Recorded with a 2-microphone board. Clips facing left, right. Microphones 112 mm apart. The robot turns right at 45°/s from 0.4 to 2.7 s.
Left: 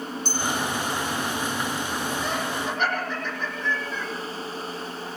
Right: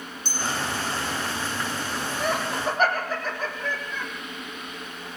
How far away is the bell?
About 9 m.